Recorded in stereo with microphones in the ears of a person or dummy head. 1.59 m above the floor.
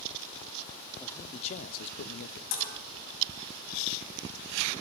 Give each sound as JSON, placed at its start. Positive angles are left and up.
{"t": 1.0, "sound": "a man speaking", "side_deg": 10, "distance_m": 0.7}
{"t": 2.5, "sound": "dishes clattering", "side_deg": 70, "distance_m": 7.0}